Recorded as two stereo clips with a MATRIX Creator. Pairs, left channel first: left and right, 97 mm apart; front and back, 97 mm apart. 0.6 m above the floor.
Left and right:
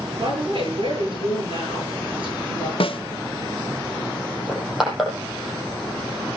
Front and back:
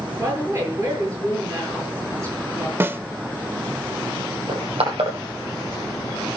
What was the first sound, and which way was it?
A woman speaking, 120° right.